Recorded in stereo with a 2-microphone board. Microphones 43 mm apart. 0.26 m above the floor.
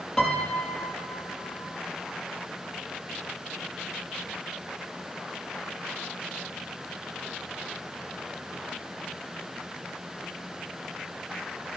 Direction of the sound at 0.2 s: 15° left (ahead or behind).